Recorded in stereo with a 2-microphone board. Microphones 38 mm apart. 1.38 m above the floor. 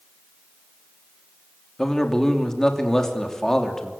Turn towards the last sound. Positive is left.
turn(degrees=15)  # may be behind; listen again after turning